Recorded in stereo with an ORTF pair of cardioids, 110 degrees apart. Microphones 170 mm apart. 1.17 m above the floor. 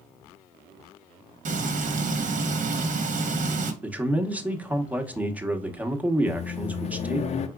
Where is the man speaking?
10° right, 1.0 m.